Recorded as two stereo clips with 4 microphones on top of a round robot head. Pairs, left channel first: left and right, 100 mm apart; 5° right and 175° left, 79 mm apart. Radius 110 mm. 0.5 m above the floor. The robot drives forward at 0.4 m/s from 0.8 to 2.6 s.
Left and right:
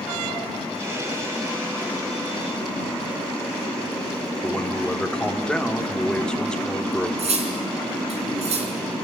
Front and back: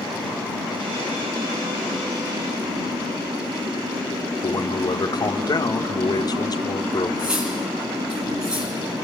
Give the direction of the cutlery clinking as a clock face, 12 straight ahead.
3 o'clock.